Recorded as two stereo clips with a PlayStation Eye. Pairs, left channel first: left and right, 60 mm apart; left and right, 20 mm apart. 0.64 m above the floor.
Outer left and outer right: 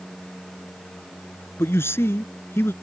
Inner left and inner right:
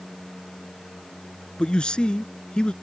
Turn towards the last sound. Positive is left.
turn(degrees=50)  # may be behind; listen again after turning